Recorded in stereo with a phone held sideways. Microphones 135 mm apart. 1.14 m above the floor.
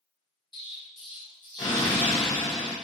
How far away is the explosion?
About 1.2 m.